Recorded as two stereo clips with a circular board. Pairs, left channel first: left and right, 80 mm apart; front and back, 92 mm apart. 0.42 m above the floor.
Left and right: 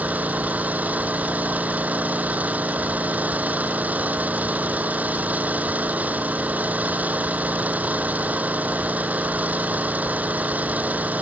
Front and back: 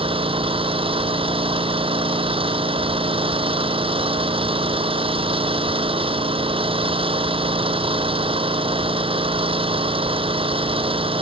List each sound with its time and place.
0.0 s an engine running: 160° right